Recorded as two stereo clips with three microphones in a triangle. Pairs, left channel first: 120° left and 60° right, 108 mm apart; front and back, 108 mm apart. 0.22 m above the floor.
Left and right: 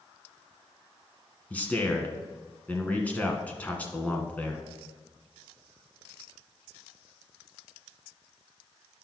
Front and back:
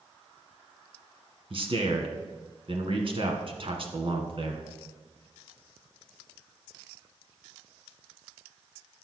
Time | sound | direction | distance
1.5 | a man speaking | 165° right | 1.7 m